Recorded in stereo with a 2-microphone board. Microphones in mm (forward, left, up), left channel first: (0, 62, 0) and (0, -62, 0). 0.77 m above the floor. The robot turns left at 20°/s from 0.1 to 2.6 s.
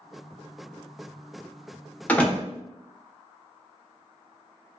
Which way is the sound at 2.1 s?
15° left (ahead or behind).